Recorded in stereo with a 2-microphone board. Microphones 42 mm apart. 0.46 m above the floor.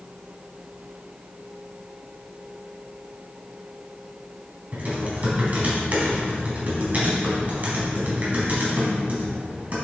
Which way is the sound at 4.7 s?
40° right (ahead or behind).